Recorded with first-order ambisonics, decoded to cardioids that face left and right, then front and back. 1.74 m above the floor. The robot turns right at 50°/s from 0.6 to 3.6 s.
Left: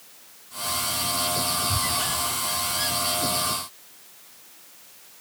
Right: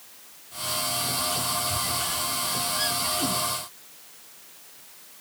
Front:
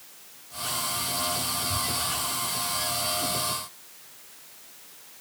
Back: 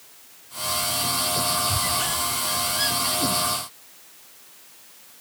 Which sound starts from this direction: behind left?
A squeak, at 1.7 s.